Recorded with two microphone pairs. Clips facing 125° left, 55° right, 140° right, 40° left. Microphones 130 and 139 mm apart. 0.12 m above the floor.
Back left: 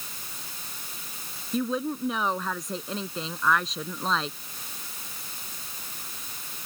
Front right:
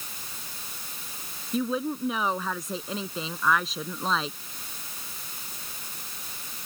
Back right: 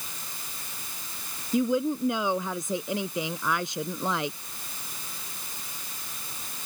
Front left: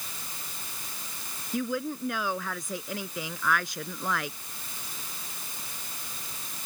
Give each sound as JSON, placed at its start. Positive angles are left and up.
{"t": 1.5, "sound": "a woman speaking", "azimuth_deg": -140}